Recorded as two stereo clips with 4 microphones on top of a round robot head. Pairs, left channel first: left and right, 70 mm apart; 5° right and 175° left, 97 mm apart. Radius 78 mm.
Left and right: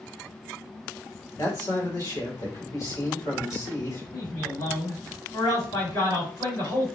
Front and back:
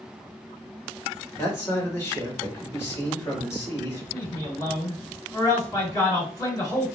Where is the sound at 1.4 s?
55° left, 2 m.